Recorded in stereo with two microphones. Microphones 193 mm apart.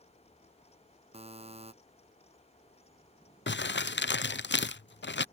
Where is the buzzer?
30° right (ahead or behind).